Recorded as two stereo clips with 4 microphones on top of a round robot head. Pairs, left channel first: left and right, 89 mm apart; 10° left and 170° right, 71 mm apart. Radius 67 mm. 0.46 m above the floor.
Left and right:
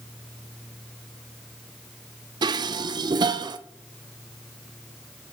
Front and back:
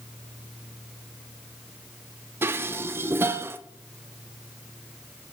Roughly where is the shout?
No shout in this recording.